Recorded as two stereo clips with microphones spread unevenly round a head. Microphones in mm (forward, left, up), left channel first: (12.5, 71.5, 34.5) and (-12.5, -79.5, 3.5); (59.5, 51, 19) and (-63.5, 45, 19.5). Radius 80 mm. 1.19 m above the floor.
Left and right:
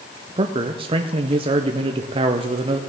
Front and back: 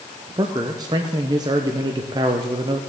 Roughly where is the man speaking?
Behind right.